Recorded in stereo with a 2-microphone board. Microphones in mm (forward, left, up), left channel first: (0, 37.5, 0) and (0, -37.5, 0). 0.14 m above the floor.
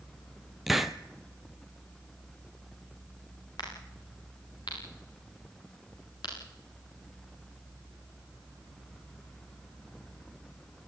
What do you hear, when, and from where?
0.7 s a hiss: centre (ahead or behind), 1.1 m
3.6 s a crack: 70° left (ahead or behind), 10 m